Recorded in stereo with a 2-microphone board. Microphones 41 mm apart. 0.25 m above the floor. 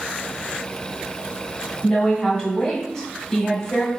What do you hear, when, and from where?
1.8 s a woman speaking: 15° left (ahead or behind), 1.2 m